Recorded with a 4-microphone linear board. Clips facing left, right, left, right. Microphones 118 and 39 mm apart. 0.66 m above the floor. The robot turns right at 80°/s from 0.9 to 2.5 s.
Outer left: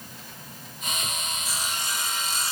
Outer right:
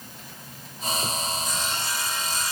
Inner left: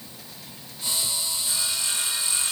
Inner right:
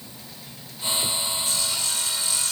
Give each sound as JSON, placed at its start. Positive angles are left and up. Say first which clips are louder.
{"t": 1.4, "sound": "sawing", "louder": "outer right 3 dB, inner right 1 dB", "side_deg": 5, "distance_m": 1.1}